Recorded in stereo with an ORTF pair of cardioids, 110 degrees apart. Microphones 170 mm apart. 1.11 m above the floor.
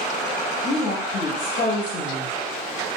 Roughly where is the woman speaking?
Ahead left.